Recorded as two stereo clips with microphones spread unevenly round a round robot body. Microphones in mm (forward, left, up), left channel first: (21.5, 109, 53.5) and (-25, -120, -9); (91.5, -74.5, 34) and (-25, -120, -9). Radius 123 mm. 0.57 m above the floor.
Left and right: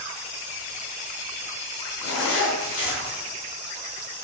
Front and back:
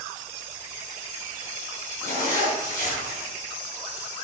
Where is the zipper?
40° left, 5 m.